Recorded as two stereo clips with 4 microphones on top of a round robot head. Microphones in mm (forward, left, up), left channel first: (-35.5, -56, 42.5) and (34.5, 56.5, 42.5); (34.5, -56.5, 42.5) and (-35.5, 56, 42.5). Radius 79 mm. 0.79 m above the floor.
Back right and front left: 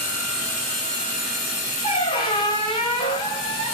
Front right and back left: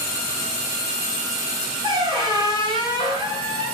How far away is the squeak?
About 1.0 m.